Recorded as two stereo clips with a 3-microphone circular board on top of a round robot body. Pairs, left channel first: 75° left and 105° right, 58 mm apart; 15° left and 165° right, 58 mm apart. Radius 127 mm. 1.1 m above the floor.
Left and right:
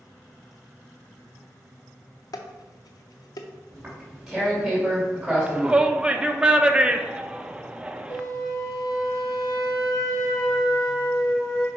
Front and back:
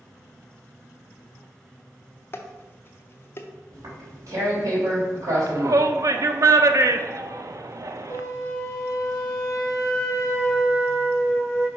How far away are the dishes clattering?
About 0.5 m.